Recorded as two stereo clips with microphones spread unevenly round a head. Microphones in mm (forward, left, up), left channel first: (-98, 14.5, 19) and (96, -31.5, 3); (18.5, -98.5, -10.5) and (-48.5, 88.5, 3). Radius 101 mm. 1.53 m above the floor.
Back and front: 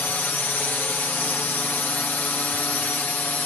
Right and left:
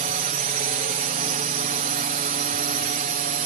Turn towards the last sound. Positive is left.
turn(degrees=85)